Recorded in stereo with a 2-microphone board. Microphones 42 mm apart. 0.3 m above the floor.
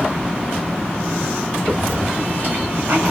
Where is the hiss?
40° right (ahead or behind), 1.4 m.